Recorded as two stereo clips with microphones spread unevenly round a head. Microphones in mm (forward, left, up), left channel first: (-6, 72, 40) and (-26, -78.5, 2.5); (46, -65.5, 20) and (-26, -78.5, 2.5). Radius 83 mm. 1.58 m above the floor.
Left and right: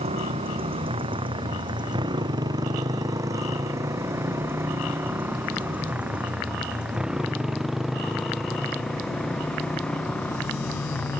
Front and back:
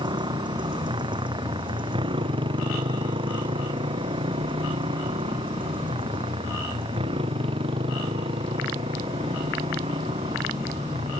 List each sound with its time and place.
0.0 s a motorcycle: 150° right; by 11.2 s 165° left